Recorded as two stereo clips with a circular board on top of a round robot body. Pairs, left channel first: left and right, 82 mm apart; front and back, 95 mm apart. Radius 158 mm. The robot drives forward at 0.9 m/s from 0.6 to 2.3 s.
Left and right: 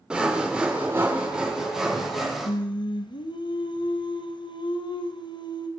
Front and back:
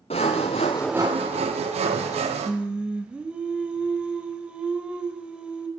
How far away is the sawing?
About 0.5 m.